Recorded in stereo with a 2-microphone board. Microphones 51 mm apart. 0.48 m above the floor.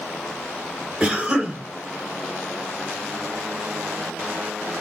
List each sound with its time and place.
1.0 s a cough: 5° right (ahead or behind), 1.9 m